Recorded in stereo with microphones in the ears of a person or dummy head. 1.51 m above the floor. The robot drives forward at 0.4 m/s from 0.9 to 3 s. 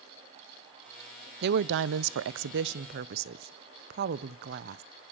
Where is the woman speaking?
60° right (ahead or behind), 0.6 m; by 4.8 s 50° right (ahead or behind), 0.7 m.